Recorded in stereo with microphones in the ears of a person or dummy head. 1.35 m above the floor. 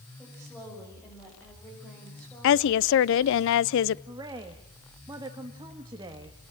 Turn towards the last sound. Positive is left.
turn(degrees=-20)  # may be behind; listen again after turning